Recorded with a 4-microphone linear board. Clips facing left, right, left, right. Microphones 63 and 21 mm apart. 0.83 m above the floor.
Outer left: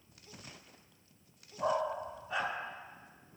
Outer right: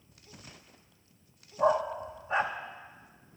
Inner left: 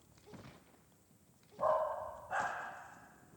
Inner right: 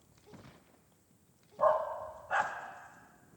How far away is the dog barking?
About 0.6 m.